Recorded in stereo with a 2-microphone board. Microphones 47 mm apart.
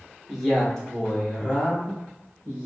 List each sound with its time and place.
0.3 s a man speaking: 5° left (ahead or behind), 0.9 m; by 2.7 s 30° left (ahead or behind), 1.4 m